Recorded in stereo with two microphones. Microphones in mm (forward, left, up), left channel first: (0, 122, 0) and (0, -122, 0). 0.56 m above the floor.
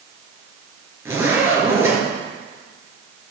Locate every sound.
1.1 s a zipper: 10° right (ahead or behind), 4.5 m